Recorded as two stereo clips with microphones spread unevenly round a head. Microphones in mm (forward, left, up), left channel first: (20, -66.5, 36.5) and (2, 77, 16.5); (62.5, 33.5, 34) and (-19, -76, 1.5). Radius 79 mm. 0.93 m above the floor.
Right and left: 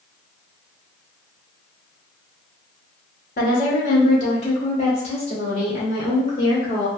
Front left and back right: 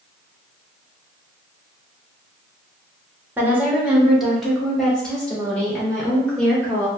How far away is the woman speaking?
About 1.2 m.